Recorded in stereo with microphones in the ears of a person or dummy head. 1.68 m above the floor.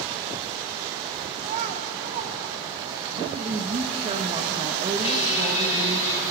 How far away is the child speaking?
About 2.5 m.